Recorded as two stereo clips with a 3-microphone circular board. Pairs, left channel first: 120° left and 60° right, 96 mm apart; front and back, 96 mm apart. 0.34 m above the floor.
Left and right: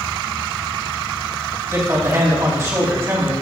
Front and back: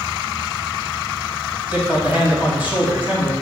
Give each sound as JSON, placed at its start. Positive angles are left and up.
{"t": 1.7, "sound": "a man speaking", "azimuth_deg": -115, "distance_m": 2.5}